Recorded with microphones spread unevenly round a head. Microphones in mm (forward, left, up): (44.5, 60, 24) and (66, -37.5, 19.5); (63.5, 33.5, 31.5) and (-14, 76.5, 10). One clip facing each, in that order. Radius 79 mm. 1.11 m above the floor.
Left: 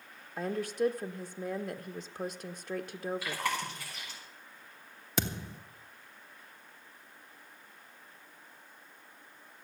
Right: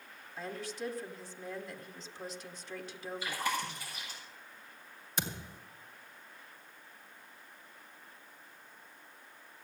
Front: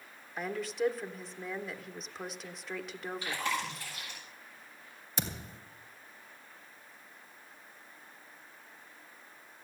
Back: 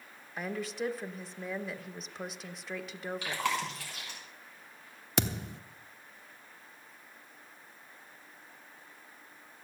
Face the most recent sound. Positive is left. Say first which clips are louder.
# left 5 dB, back 7 dB
turn(degrees=135)